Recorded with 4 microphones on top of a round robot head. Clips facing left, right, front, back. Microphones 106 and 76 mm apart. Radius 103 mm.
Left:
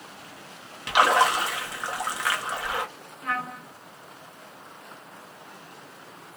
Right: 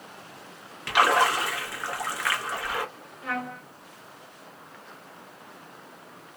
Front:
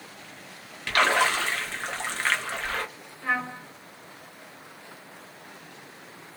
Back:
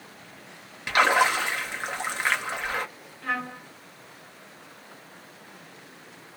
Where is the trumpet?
75° left, 1.9 m.